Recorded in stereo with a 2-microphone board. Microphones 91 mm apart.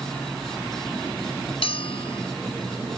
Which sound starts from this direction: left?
A bell, at 1.6 s.